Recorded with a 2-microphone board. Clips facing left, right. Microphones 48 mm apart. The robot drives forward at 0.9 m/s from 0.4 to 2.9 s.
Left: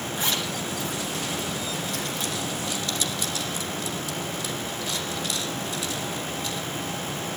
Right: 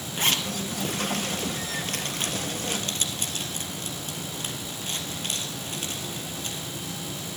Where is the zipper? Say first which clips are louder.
Right 3 dB; 55° right (ahead or behind), 2 m; by 6.7 s 45° right (ahead or behind), 2.5 m.